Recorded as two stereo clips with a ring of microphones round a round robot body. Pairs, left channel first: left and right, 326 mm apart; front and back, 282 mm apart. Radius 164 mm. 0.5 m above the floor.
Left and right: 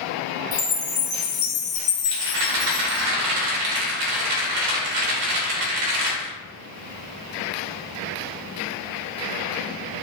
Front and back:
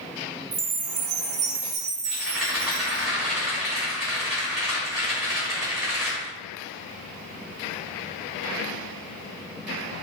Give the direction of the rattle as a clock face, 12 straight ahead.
3 o'clock.